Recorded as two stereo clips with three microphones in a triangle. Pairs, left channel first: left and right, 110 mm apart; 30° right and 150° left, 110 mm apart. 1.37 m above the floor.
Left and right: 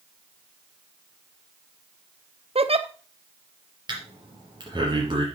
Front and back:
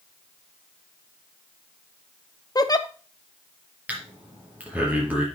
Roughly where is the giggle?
Right.